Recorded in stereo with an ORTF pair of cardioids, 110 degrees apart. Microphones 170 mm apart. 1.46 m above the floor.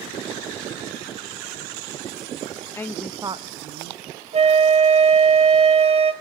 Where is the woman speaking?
15° left, 0.6 m; by 4.0 s 70° right, 0.8 m.